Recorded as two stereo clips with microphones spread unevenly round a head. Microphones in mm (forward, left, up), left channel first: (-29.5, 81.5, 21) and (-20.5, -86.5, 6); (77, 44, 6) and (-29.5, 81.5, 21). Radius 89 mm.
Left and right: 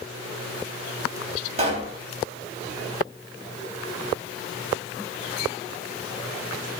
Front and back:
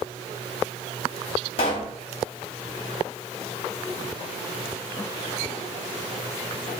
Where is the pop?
45° right, 1.0 m.